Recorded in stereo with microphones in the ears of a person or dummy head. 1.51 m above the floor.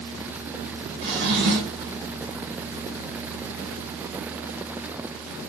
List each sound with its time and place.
1.0 s a drawer: 60° right (ahead or behind), 1.1 m